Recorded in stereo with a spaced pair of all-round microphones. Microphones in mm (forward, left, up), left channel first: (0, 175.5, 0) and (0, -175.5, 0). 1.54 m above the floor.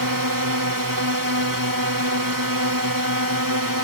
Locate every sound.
0.0 s a drone: 65° right (ahead or behind)